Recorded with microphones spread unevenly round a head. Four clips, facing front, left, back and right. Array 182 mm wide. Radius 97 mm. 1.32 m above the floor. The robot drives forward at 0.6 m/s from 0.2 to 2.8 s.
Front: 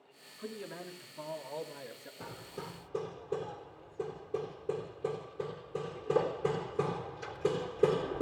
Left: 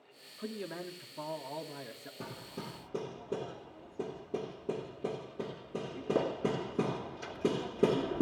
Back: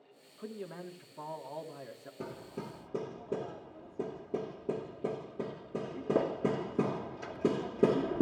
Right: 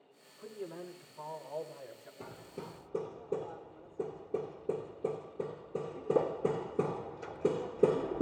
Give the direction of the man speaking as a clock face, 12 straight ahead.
9 o'clock.